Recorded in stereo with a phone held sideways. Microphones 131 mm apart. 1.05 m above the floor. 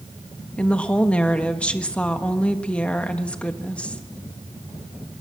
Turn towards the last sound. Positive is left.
turn(degrees=10)  # may be behind; listen again after turning